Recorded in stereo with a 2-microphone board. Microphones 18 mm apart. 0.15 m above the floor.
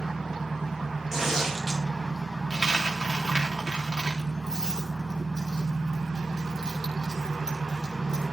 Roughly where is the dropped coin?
Right.